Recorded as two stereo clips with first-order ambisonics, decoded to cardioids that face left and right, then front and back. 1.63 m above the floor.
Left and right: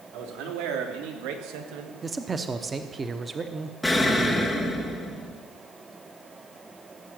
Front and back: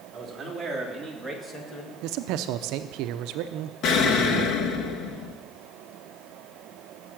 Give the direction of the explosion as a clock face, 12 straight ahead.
12 o'clock.